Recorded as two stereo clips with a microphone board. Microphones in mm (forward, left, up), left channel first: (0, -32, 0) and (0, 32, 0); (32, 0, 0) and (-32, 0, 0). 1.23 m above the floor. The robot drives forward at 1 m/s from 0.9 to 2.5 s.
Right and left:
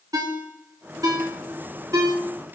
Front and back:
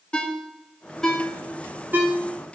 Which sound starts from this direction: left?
A ringtone, at 0.1 s.